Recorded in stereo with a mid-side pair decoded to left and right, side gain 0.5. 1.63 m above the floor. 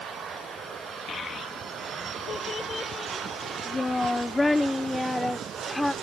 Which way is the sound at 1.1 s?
45° left.